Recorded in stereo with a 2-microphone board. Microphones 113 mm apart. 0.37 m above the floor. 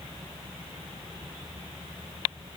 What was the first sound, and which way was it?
Only background noise.